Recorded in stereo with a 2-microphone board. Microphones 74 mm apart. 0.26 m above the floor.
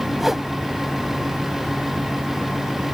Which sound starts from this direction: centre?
A whoosh, at 0.2 s.